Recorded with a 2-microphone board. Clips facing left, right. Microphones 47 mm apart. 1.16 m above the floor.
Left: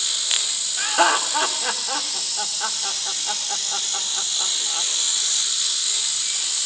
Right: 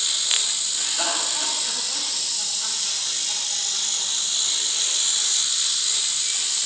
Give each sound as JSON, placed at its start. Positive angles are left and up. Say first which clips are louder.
{"t": 0.8, "sound": "laughter", "louder": "left 10 dB", "side_deg": 50, "distance_m": 1.8}